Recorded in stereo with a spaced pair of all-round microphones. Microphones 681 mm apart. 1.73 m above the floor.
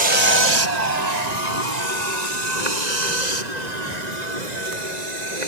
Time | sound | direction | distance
0.0 | a vehicle | 75° right (ahead or behind) | ?